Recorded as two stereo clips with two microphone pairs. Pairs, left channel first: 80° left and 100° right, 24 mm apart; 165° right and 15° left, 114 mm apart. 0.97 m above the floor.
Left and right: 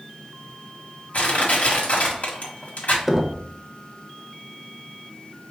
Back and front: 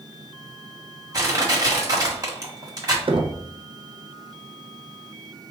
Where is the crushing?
75° left, 1.7 m.